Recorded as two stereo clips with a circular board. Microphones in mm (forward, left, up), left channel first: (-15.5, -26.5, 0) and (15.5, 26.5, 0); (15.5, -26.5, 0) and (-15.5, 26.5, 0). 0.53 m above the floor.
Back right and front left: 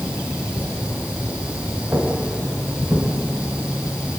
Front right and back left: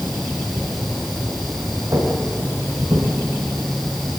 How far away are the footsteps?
About 6 m.